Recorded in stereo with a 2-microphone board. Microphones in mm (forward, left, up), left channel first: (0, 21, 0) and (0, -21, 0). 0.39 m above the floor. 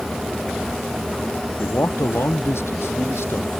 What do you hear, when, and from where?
1.6 s a man speaking: 70° left (ahead or behind)